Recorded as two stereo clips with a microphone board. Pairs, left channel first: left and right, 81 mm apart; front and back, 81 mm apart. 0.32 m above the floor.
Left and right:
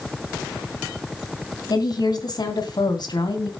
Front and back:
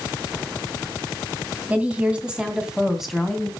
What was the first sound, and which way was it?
A woman speaking, 110° left.